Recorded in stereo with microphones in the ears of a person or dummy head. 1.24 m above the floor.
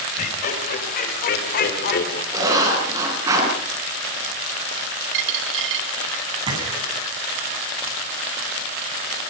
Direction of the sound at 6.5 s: 30° right (ahead or behind).